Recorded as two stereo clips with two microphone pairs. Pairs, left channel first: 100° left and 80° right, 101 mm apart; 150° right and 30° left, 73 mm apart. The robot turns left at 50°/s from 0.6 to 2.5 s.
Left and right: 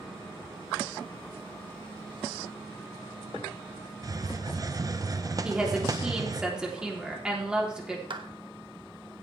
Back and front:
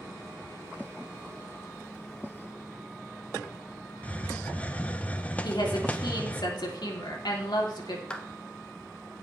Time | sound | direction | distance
4.0 | a hiss | 90° right | 0.7 m
5.4 | a woman speaking | 160° right | 3 m
8.1 | a clap | 75° right | 1.2 m